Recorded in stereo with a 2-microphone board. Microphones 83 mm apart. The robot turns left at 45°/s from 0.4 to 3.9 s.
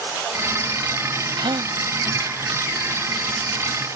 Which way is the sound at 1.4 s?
70° right (ahead or behind).